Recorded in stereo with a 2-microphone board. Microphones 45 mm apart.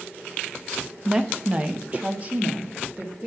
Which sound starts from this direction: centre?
A woman speaking, at 1.1 s.